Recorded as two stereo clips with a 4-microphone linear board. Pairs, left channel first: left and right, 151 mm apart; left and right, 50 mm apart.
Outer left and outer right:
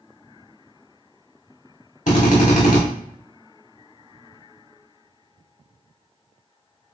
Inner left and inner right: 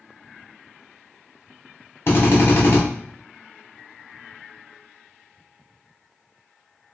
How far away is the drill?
About 1.1 m.